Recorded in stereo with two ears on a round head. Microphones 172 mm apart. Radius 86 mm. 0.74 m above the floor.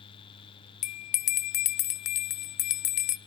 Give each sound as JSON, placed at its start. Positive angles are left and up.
{"t": 0.8, "sound": "a bell", "side_deg": 40, "distance_m": 0.5}